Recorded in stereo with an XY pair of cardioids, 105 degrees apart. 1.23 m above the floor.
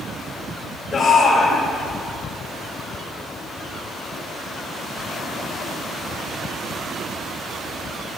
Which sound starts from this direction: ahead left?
A shout, at 0.9 s.